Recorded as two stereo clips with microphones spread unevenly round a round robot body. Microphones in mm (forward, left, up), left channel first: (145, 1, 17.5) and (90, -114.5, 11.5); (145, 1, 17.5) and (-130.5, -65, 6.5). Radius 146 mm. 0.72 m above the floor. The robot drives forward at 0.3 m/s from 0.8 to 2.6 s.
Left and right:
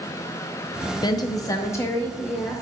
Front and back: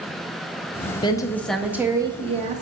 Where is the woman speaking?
75° left, 0.6 m; by 2.6 s 145° left, 0.7 m.